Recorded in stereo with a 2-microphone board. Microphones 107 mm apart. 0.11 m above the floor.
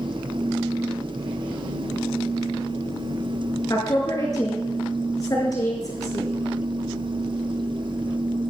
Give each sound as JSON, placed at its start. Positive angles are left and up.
{"t": 3.7, "sound": "a woman speaking", "side_deg": 35, "distance_m": 5.0}